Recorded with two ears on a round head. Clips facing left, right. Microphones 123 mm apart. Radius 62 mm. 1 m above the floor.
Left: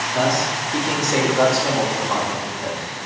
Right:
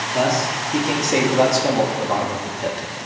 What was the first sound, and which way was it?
A man speaking, 10° right (ahead or behind).